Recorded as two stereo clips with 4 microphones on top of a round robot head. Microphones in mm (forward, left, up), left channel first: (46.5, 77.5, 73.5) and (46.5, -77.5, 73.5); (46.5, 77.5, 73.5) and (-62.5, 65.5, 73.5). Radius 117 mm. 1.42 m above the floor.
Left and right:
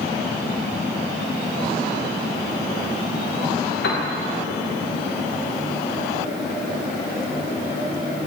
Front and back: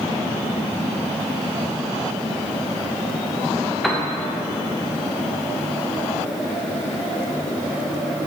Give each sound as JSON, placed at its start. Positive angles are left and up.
{"t": 3.8, "sound": "a piano", "azimuth_deg": 95, "distance_m": 0.8}